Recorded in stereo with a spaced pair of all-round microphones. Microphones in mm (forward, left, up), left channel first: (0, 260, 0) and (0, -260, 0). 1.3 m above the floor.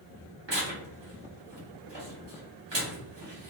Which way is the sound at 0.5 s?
55° right (ahead or behind).